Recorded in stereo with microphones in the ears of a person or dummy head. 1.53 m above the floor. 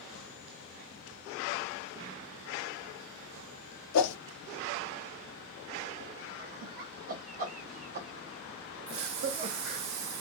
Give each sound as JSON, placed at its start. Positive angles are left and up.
{"t": 3.9, "sound": "a whoosh", "side_deg": 80, "distance_m": 0.5}
{"t": 6.4, "sound": "laughter", "side_deg": -45, "distance_m": 1.2}
{"t": 8.9, "sound": "a hiss", "side_deg": -80, "distance_m": 0.9}